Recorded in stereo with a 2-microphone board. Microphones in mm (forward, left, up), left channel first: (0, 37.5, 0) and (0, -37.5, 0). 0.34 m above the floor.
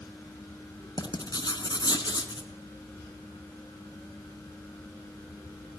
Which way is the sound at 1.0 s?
75° left (ahead or behind).